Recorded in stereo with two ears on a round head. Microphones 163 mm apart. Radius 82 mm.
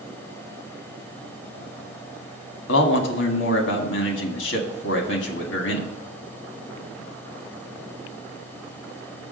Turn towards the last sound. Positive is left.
turn(degrees=75)  # may be behind; listen again after turning